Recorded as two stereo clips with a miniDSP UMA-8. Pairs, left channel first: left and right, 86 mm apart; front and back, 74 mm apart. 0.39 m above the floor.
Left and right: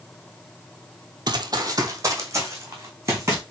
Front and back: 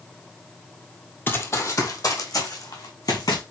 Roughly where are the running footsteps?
Ahead right.